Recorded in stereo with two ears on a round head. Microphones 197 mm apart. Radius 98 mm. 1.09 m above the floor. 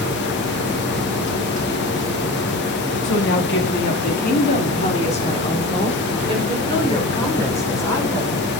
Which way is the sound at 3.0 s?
60° left (ahead or behind).